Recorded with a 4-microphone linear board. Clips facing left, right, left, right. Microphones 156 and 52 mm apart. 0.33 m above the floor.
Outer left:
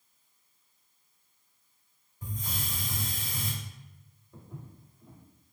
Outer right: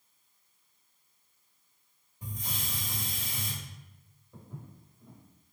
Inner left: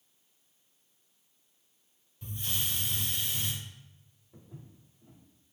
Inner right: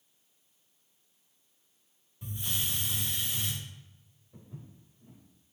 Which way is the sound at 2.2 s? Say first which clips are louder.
Outer left 2 dB, even; 15° right (ahead or behind).